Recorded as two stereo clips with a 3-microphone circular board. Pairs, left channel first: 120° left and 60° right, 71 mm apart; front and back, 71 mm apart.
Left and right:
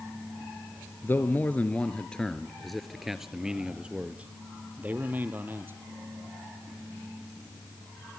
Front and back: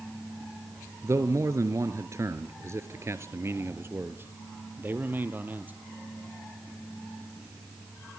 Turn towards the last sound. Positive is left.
turn(degrees=-115)